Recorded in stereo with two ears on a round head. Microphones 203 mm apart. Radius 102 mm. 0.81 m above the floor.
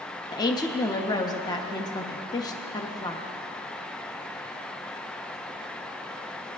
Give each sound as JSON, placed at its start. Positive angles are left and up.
{"t": 0.3, "sound": "a woman speaking", "side_deg": 20, "distance_m": 0.7}